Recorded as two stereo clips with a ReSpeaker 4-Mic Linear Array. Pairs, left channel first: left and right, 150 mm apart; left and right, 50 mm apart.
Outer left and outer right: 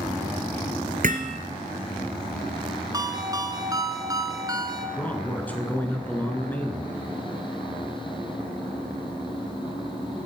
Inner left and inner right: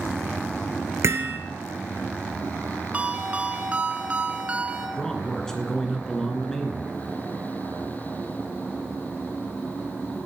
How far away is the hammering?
About 1.5 m.